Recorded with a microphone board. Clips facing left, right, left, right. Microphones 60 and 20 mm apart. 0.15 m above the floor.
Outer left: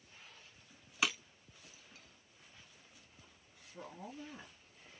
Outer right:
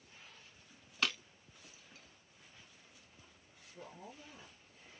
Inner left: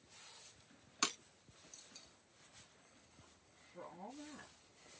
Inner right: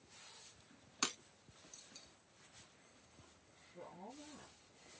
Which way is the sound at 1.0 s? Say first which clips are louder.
Outer left 1 dB, inner left 2 dB; 10° left (ahead or behind).